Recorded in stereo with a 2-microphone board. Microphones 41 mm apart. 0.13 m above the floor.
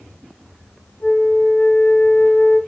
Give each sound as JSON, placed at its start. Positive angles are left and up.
{"t": 1.0, "sound": "a flute", "side_deg": 60, "distance_m": 7.0}